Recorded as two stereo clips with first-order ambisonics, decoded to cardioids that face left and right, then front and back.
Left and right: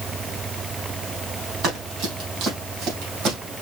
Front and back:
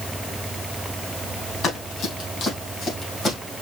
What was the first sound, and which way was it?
Running footsteps, 55° right.